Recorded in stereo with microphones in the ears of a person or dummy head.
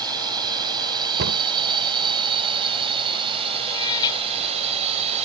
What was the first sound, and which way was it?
A drone, 25° right (ahead or behind).